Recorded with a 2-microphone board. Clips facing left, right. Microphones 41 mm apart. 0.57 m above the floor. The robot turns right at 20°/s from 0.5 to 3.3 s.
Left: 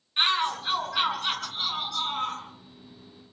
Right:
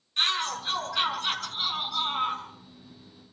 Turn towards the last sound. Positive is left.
turn(degrees=-145)